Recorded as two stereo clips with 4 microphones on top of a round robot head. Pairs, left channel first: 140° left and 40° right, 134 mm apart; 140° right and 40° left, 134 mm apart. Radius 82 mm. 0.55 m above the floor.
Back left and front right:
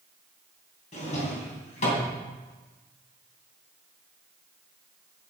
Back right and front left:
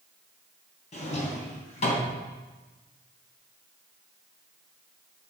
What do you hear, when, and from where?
0.9 s a drawer: straight behind, 3 m